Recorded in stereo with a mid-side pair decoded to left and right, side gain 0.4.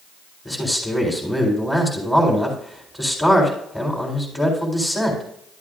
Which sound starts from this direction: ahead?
A man speaking, at 0.5 s.